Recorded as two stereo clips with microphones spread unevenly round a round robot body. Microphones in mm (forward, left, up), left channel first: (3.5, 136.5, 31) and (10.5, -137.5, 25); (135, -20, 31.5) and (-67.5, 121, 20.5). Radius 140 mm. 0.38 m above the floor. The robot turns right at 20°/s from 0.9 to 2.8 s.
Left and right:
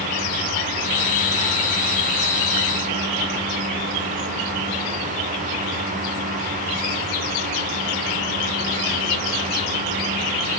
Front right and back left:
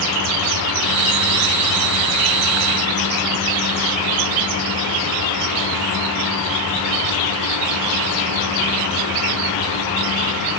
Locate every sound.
Only background noise.